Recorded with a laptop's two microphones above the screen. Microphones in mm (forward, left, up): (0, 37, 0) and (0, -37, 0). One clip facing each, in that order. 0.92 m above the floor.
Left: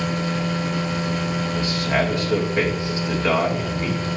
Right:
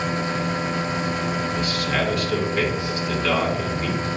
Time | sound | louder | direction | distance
0.0 | a machine running | even | 25° right (ahead or behind) | 1.4 m
1.6 | a man speaking | left 2 dB | 25° left (ahead or behind) | 2.5 m